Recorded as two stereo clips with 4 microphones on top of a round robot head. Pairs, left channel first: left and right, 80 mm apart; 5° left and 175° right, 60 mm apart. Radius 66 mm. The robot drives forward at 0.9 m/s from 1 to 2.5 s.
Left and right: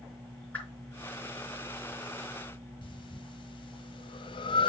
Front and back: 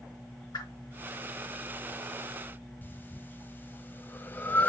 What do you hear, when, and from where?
0.5 s a whoosh: 15° left, 4.5 m
2.8 s breathing: 65° left, 1.2 m